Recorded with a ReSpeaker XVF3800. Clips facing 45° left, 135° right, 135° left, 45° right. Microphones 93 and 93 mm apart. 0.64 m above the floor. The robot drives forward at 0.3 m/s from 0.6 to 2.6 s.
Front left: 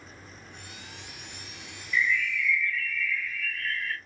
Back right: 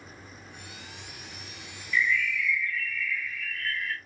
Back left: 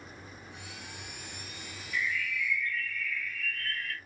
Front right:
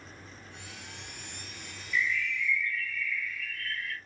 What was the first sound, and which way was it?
A bird, 120° left.